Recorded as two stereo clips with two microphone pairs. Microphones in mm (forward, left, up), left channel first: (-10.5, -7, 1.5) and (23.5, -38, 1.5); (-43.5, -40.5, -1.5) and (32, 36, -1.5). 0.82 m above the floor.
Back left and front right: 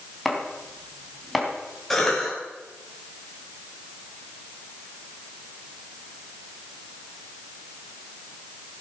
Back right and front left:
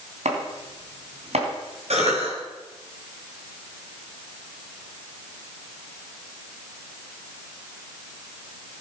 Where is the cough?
55° left, 5 m.